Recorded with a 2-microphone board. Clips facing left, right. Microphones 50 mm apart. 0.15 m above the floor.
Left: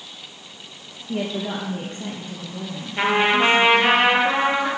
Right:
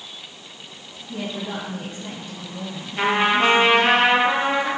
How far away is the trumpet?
About 3 m.